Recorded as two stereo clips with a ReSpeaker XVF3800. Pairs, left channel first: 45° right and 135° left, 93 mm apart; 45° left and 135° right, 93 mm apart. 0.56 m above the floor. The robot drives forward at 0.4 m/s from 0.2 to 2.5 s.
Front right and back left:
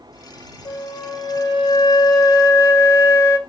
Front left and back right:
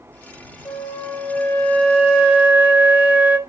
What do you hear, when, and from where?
0.7 s a flute: 20° right, 1.0 m; by 3.4 s 70° right, 0.5 m